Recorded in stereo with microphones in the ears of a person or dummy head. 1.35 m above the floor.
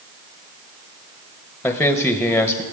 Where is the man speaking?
10° left (ahead or behind), 0.7 m.